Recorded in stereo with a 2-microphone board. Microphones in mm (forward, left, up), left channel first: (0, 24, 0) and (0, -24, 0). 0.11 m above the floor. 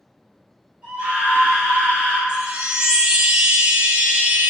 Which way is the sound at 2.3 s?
20° right (ahead or behind).